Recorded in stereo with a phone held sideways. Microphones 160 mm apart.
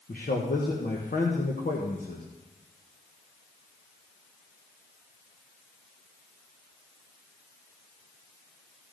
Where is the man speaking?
60° left (ahead or behind), 1.3 m.